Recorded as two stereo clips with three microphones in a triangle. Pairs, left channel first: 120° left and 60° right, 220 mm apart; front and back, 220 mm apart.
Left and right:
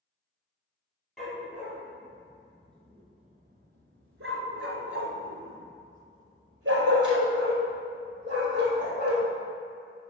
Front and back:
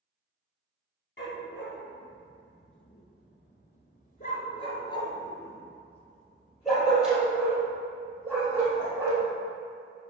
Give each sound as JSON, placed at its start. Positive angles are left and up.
{"t": 1.2, "sound": "a dog barking", "azimuth_deg": 30, "distance_m": 1.8}